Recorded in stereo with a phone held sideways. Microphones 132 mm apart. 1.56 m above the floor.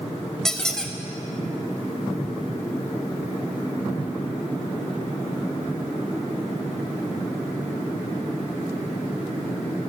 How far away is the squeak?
About 0.5 m.